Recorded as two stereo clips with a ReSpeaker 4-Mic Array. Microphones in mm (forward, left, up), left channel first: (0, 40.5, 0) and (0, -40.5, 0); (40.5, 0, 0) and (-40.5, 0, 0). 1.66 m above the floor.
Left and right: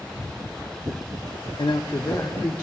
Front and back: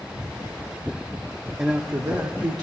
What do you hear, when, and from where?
1.6 s a man speaking: 105° left, 0.6 m; by 2.6 s 155° left, 1.3 m